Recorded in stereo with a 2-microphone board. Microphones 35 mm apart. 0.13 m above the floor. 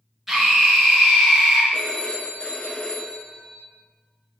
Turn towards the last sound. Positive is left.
turn(degrees=30)  # may be behind; listen again after turning